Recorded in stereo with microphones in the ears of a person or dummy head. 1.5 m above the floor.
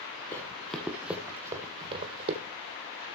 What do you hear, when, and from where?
0.3 s running footsteps: 20° left (ahead or behind), 1.6 m; by 2.4 s 30° right (ahead or behind), 1.9 m